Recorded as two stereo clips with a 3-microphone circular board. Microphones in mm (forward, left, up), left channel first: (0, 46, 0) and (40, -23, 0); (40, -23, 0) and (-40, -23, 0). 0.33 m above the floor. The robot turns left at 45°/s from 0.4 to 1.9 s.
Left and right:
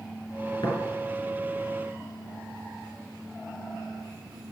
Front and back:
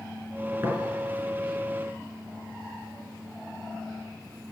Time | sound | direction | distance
0.6 | tapping | 130° left | 4.5 m